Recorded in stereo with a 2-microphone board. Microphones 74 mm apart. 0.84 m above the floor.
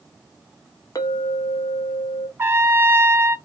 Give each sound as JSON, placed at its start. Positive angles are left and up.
{"t": 0.9, "sound": "a clink", "side_deg": 55, "distance_m": 0.7}
{"t": 2.4, "sound": "a trumpet", "side_deg": -30, "distance_m": 0.5}